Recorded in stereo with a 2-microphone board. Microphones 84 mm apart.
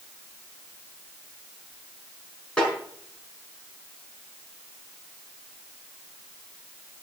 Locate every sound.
2.6 s a snare drum: 10° left (ahead or behind), 6.5 m